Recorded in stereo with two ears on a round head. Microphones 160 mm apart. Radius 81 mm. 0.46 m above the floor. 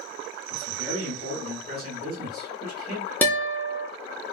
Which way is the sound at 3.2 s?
10° left (ahead or behind).